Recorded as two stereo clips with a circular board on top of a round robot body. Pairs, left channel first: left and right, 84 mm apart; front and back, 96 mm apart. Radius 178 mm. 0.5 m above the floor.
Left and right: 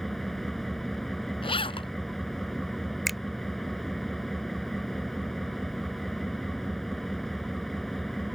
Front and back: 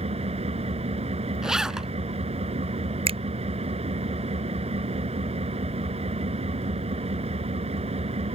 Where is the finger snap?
Straight behind.